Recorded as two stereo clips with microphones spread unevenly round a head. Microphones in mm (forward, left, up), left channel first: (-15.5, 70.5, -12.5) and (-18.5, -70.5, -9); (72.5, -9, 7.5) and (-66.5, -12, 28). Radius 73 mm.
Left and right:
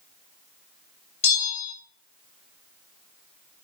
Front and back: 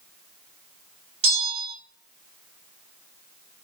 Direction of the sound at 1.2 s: 130° left.